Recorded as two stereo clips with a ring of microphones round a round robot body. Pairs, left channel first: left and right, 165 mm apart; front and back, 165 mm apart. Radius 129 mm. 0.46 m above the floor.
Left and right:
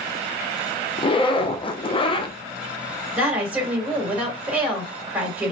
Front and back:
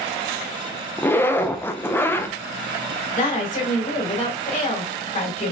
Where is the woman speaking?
10° right, 1.8 m.